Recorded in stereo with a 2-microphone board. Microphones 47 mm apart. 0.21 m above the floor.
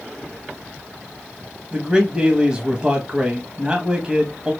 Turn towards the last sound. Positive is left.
turn(degrees=-20)  # may be behind; listen again after turning